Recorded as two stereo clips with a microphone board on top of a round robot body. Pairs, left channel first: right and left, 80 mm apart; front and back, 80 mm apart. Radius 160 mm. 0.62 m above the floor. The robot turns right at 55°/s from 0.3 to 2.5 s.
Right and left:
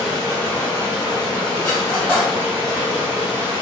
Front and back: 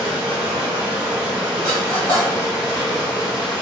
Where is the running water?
175° right, 0.9 m; by 3.6 s 55° right, 0.9 m.